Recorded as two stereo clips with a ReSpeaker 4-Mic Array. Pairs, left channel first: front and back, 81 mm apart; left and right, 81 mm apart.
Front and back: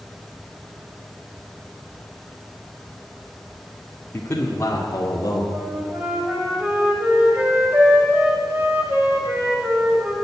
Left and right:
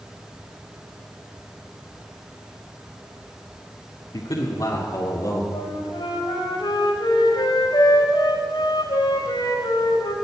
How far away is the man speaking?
About 1.6 m.